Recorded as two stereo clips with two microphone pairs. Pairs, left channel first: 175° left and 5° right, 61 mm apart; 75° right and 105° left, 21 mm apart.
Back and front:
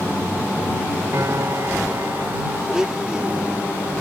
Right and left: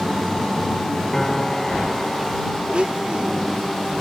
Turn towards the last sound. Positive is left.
turn(degrees=75)